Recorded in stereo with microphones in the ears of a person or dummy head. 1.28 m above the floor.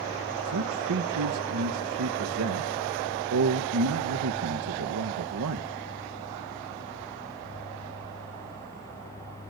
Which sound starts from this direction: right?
A man speaking, at 0.5 s.